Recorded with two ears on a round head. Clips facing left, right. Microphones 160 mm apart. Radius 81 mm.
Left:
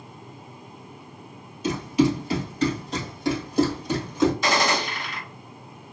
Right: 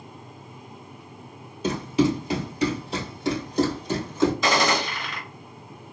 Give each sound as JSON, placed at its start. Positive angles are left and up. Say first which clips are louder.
{"t": 1.6, "sound": "running footsteps", "louder": "left 1 dB", "side_deg": -30, "distance_m": 1.6}
{"t": 4.4, "sound": "a gunshot", "louder": "right 1 dB", "side_deg": -70, "distance_m": 1.0}